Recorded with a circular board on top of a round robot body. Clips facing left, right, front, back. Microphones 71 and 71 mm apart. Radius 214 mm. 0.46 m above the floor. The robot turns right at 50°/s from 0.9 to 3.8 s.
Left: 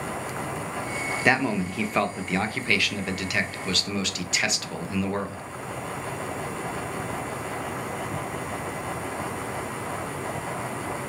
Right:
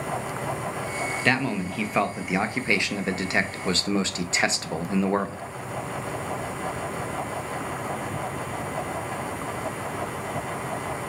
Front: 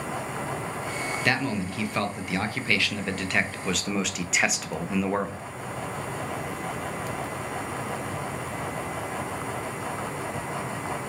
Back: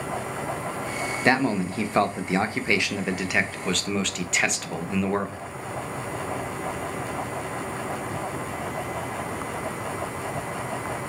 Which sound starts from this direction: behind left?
A man speaking, at 1.2 s.